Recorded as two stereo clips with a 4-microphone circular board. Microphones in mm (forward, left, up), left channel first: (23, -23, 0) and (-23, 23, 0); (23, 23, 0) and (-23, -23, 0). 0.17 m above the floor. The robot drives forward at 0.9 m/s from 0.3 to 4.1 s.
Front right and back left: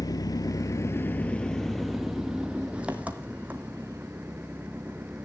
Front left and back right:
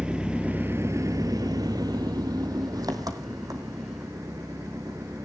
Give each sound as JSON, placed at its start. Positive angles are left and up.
{"t": 0.0, "sound": "an engine running", "azimuth_deg": -60, "distance_m": 1.0}